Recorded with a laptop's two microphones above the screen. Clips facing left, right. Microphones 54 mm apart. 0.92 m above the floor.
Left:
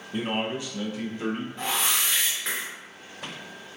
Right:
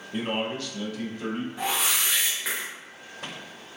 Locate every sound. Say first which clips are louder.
0.1 s a man speaking: even; 5° right (ahead or behind), 0.5 m; by 1.5 s 35° left (ahead or behind), 0.9 m
1.6 s a whoosh: right 1 dB; 10° right (ahead or behind), 1.0 m